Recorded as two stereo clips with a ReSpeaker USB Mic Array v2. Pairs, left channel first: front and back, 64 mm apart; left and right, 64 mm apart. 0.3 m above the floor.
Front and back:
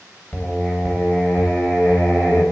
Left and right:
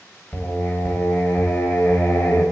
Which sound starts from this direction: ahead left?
Singing, at 0.3 s.